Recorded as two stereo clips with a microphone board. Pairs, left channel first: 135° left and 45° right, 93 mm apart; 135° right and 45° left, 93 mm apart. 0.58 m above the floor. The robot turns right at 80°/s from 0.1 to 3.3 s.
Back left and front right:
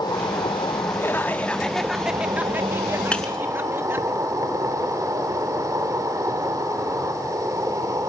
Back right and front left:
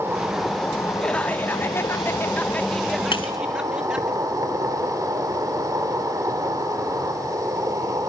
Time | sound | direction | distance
0.0 | an insect | 105° left | 1.7 m
1.0 | laughter | 155° left | 0.9 m
3.1 | breaking glass | 150° right | 1.1 m